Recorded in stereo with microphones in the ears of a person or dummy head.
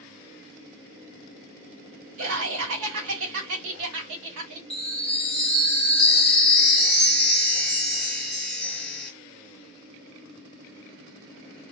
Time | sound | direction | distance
2.2 | laughter | 75° right (ahead or behind) | 1.4 m
4.7 | a chime | centre (ahead or behind) | 1.0 m